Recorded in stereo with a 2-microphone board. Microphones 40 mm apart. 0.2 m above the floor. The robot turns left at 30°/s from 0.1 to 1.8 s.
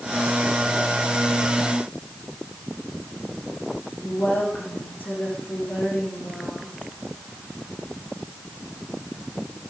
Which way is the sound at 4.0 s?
65° left (ahead or behind).